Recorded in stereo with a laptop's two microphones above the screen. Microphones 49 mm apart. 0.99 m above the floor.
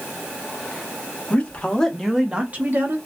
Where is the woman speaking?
35° left (ahead or behind), 1.1 m; by 3.0 s 45° right (ahead or behind), 1.1 m.